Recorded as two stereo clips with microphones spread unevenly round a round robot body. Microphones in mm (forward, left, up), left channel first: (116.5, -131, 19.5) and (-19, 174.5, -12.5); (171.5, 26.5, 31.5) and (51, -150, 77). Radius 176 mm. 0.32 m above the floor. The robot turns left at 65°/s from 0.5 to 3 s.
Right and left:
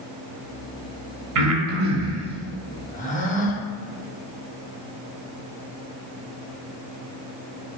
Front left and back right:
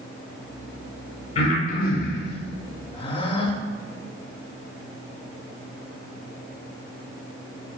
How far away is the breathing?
About 0.7 m.